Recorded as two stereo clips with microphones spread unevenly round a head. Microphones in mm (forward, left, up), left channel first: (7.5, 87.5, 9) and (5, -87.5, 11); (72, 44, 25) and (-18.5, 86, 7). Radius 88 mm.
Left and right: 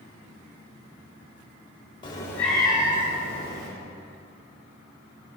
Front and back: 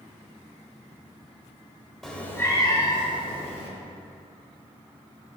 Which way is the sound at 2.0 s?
50° left.